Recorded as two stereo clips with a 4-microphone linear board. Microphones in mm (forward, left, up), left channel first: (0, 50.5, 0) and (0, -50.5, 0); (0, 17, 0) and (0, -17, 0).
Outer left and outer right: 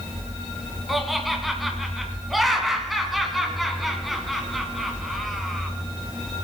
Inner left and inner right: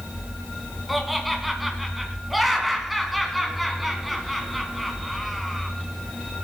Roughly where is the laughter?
Centre.